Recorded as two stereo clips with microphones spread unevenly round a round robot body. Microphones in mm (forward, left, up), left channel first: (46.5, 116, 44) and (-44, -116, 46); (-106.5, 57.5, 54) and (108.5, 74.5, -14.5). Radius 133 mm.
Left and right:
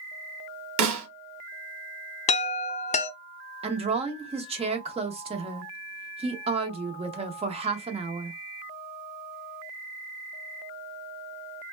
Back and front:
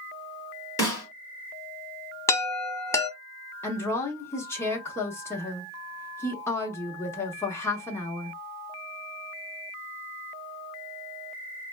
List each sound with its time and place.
0.8 s a snare drum: 95° right, 1.1 m
2.3 s a chime: 90° left, 0.7 m
3.6 s a woman speaking: 75° right, 0.8 m